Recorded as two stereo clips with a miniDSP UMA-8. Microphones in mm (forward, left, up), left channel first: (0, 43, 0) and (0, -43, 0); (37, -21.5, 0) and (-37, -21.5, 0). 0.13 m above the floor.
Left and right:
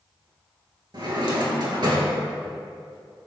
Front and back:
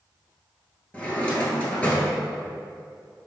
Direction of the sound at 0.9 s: 70° right.